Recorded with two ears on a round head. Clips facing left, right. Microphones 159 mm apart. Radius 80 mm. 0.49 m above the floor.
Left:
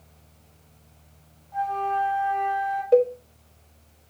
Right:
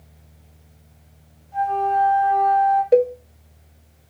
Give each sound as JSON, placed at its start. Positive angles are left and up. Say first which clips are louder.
{"t": 1.5, "sound": "a flute", "louder": "right 6 dB", "side_deg": -30, "distance_m": 3.0}
{"t": 2.9, "sound": "a cowbell", "louder": "right 1 dB", "side_deg": -20, "distance_m": 0.5}